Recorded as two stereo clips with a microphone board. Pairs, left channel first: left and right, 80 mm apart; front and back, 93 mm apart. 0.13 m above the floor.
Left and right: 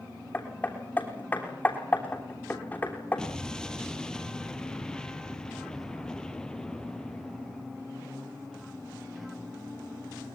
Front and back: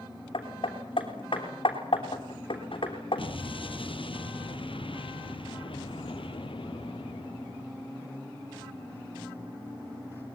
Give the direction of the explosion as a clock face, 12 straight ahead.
12 o'clock.